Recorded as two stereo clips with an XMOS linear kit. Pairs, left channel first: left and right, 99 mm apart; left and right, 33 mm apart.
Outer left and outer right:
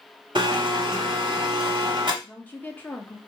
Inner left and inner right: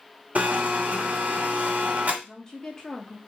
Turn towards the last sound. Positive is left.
turn(degrees=20)  # may be behind; listen again after turning